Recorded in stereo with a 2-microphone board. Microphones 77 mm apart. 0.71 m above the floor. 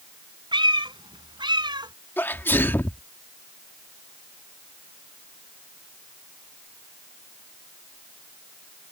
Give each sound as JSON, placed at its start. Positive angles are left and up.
{"t": 0.5, "sound": "a cat meowing", "side_deg": -80}
{"t": 2.2, "sound": "a sneeze", "side_deg": 25}